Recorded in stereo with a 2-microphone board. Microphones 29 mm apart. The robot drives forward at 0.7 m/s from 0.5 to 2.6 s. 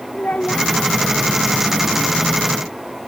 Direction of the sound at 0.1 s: 60° left (ahead or behind).